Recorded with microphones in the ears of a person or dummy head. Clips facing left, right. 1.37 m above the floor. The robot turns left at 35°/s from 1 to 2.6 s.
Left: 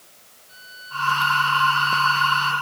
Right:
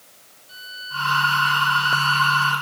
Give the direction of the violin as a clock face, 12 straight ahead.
4 o'clock.